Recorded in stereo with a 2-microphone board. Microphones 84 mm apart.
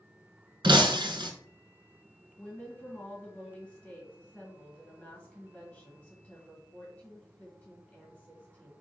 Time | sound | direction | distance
0.6 | breaking glass | 70° right (ahead or behind) | 0.8 m
2.4 | a woman speaking | 15° left (ahead or behind) | 1.6 m